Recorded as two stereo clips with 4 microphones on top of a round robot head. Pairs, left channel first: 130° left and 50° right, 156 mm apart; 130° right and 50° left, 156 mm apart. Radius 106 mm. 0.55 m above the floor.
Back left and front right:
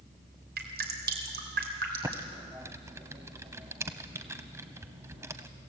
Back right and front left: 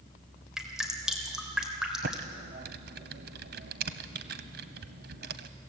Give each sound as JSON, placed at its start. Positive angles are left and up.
{"t": 0.6, "sound": "dripping", "azimuth_deg": -40, "distance_m": 3.0}
{"t": 2.0, "sound": "typing on a keyboard", "azimuth_deg": 25, "distance_m": 0.9}